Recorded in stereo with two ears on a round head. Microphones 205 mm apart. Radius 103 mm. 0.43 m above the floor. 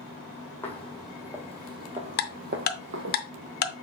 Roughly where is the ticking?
Left.